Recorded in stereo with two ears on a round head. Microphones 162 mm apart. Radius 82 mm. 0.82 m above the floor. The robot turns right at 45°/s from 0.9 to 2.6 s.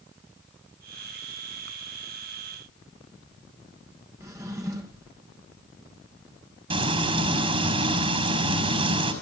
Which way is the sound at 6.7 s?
35° right (ahead or behind).